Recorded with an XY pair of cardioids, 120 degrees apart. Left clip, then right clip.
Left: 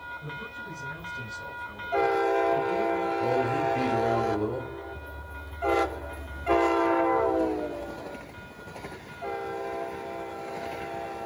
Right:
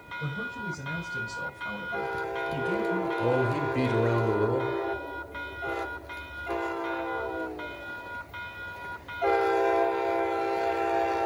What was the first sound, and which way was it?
A man speaking, 65° right.